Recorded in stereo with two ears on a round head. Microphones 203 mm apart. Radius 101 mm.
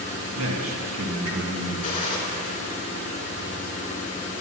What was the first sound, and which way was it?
A man speaking, 60° right (ahead or behind).